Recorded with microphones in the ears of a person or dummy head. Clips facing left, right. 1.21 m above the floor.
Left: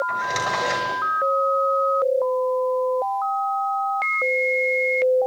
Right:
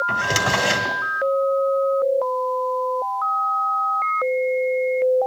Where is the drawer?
50° right (ahead or behind), 2.5 m.